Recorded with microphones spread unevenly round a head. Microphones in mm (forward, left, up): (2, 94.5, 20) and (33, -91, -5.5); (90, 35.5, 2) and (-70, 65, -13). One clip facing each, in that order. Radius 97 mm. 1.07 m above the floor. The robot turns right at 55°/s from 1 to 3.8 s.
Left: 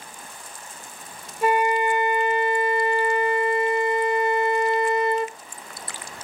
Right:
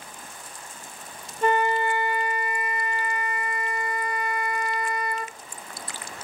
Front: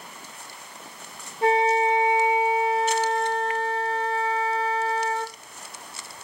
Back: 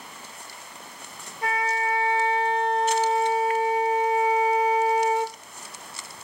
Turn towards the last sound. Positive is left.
turn(degrees=140)